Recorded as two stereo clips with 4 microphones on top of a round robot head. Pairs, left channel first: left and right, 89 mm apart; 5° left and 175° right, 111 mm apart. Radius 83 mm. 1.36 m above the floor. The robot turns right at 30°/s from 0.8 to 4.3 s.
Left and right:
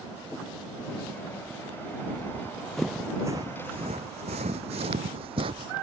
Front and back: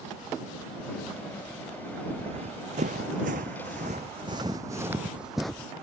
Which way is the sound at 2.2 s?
155° left.